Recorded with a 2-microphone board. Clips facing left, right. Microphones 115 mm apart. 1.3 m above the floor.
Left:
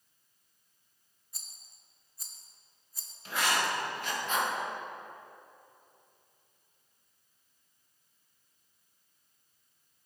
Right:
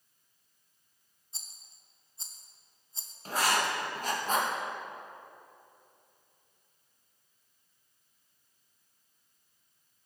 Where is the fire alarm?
No fire alarm in this recording.